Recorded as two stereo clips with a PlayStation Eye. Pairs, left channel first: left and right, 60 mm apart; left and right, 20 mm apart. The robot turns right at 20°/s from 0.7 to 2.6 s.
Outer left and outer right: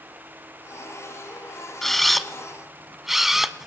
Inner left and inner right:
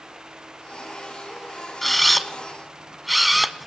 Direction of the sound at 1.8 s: 5° left (ahead or behind).